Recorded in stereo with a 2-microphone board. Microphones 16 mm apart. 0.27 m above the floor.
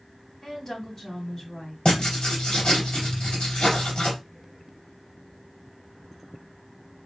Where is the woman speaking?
35° left (ahead or behind), 1.8 m.